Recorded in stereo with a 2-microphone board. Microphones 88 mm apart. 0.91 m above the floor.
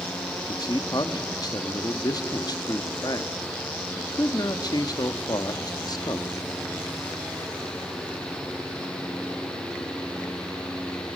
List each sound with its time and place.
0.3 s a man speaking: 50° left (ahead or behind), 1.2 m